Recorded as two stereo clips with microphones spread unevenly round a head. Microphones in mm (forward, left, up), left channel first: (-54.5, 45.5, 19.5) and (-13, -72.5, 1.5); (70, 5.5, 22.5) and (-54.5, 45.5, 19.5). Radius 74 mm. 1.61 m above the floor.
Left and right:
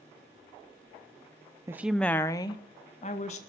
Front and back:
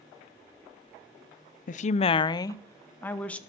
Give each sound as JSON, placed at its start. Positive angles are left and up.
{"t": 1.7, "sound": "a woman speaking", "azimuth_deg": 5, "distance_m": 0.6}